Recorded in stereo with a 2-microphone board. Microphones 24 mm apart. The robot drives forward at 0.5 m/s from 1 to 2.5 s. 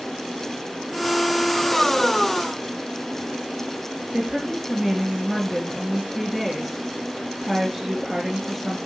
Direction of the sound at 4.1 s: 20° right (ahead or behind).